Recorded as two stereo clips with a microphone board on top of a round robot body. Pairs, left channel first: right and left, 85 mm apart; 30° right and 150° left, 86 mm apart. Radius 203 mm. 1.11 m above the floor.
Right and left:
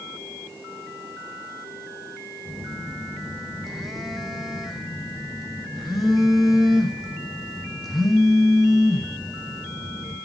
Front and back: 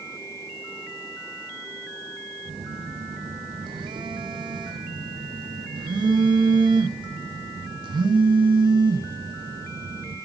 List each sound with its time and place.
2.5 s a phone buzzing: straight behind, 0.6 m